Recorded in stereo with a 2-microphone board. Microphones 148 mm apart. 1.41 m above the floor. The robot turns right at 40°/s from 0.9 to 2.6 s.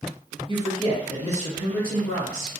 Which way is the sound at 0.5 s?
150° right.